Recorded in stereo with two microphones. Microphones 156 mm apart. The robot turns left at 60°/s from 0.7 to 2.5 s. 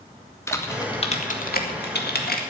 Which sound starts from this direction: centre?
Typing on a keyboard, at 0.5 s.